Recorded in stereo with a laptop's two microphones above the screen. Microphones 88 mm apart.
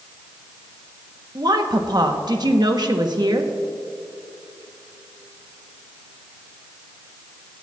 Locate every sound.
1.4 s a woman speaking: 50° right (ahead or behind), 1.0 m